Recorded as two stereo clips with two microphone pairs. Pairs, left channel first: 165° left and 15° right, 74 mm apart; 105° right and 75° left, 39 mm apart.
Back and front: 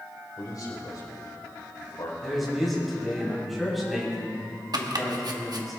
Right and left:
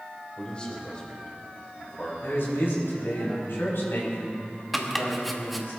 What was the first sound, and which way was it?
A man speaking, 170° right.